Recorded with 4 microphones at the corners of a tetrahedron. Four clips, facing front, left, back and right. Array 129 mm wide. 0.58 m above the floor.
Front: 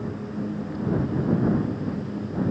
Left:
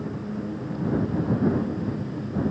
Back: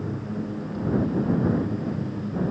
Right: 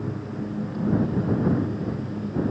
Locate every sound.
Only background noise.